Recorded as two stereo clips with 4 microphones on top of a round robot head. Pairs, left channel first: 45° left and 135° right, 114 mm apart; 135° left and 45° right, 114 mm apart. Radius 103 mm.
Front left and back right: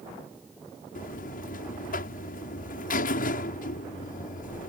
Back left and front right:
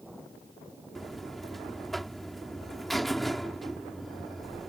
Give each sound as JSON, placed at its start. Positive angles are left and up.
{"t": 0.9, "sound": "a buzzer", "azimuth_deg": 45}